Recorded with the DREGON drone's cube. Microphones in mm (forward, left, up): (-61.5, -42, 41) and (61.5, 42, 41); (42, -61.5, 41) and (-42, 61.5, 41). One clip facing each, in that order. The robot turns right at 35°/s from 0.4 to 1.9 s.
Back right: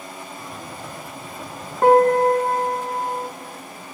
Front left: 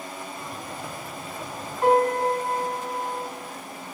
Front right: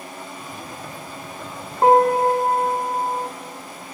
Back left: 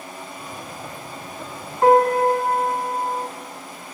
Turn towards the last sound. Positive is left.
turn(degrees=-120)